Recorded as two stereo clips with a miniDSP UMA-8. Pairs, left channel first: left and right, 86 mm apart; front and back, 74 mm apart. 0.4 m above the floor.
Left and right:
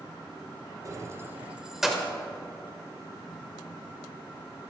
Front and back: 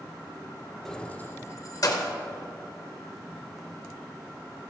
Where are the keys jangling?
80° right, 0.5 m; by 2.1 s 5° left, 0.8 m.